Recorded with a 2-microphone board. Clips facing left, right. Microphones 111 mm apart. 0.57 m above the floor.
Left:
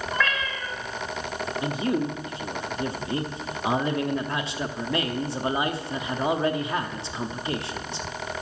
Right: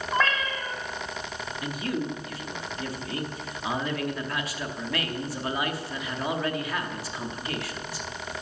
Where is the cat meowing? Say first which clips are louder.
Right 3 dB; 35° right (ahead or behind), 1.7 m.